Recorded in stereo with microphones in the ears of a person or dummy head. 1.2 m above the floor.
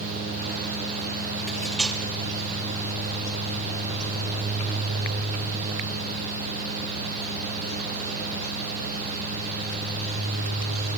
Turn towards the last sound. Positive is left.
turn(degrees=0)  # may be behind; listen again after turning